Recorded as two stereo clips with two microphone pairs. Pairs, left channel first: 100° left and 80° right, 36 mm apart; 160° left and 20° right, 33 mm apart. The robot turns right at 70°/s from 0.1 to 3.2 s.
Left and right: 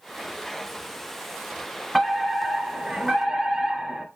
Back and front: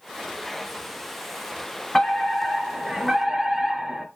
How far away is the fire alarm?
About 1.9 m.